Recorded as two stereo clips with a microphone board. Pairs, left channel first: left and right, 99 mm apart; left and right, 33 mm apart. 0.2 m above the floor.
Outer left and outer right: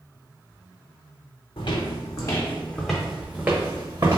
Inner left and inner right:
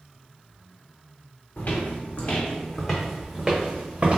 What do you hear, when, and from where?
1.6 s footsteps: 55° left (ahead or behind), 0.8 m; by 4.2 s 40° right (ahead or behind), 1.0 m